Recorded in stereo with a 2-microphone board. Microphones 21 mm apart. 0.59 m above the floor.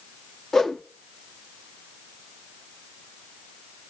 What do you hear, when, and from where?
0.5 s a whoosh: 25° left (ahead or behind), 1.0 m